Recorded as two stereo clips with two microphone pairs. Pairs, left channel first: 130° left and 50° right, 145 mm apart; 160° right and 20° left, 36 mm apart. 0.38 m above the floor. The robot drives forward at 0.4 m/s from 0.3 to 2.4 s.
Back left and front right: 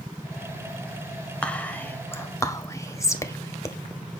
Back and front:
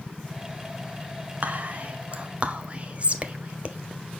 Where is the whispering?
45° left, 1.3 m; by 3.8 s 65° left, 1.2 m.